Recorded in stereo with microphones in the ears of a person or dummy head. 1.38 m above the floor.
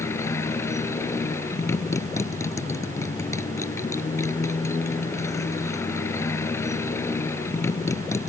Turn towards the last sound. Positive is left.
turn(degrees=20)  # may be behind; listen again after turning